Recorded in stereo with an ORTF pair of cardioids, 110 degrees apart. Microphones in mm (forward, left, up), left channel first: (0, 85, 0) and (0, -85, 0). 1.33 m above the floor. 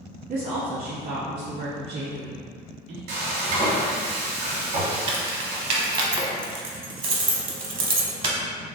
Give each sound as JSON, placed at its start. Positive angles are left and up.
{"t": 0.3, "sound": "a woman speaking", "azimuth_deg": -55, "distance_m": 1.2}
{"t": 3.1, "sound": "frying", "azimuth_deg": -65, "distance_m": 1.4}
{"t": 5.1, "sound": "keys jangling", "azimuth_deg": -30, "distance_m": 0.7}